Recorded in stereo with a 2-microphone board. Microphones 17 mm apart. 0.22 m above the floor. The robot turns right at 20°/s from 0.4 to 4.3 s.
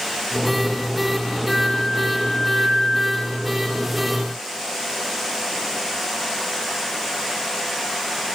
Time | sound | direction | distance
1.5 | a flute | 35° left | 5.5 m